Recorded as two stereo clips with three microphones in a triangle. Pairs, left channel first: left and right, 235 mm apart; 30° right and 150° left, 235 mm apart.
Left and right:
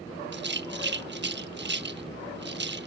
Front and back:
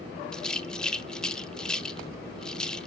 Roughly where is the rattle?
Behind right.